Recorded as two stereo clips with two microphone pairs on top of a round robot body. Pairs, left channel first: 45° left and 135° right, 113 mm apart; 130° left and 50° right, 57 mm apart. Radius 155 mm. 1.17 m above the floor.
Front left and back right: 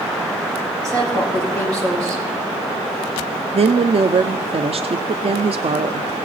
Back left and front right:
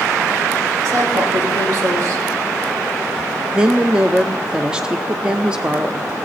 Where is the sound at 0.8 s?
70° right, 6.5 m.